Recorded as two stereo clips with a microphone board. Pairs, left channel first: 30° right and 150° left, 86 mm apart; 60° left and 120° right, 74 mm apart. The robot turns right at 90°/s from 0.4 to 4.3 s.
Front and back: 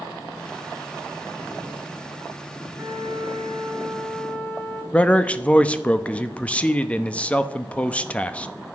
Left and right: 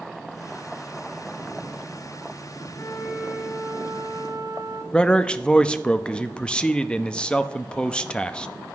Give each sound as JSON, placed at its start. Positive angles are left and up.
{"t": 2.8, "sound": "a flute", "azimuth_deg": 130, "distance_m": 4.5}
{"t": 4.9, "sound": "a man speaking", "azimuth_deg": 15, "distance_m": 0.8}